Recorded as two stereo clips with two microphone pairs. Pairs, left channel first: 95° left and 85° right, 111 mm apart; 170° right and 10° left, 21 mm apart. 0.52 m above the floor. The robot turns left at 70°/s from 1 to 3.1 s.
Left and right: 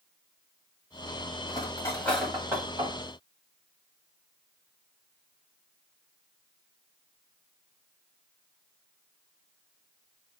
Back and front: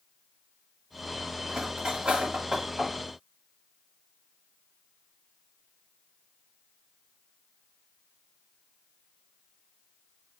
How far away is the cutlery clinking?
About 1.7 m.